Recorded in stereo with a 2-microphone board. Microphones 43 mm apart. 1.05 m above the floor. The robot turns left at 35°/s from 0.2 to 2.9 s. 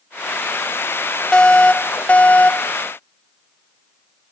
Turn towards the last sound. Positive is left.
turn(degrees=95)